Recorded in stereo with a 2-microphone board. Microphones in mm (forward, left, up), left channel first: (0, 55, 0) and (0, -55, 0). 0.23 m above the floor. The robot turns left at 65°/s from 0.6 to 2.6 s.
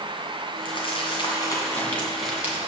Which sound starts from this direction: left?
Crumpling, at 0.7 s.